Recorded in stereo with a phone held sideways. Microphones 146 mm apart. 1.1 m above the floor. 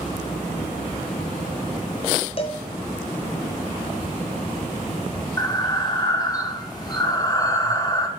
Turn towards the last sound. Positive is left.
turn(degrees=25)  # may be behind; listen again after turning